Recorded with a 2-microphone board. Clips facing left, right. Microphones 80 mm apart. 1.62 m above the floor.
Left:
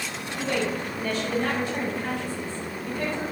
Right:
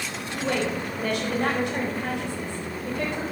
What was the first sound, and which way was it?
A woman speaking, 65° right (ahead or behind).